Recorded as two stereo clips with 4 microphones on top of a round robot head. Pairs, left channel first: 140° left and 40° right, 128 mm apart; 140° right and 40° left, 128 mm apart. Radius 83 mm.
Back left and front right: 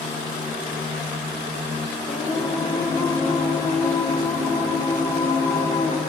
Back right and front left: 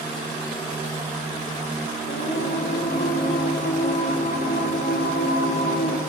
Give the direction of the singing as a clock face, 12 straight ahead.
5 o'clock.